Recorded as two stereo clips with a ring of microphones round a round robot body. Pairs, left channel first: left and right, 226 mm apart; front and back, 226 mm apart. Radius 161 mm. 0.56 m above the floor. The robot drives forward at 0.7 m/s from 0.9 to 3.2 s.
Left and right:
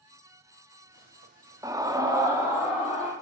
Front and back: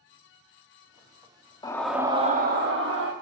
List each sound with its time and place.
1.6 s a scream: 40° right, 0.6 m; by 3.1 s 170° right, 1.0 m